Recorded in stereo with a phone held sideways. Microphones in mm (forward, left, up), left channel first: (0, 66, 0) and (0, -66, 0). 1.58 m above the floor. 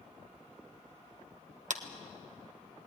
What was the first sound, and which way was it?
A clap, 65° right (ahead or behind).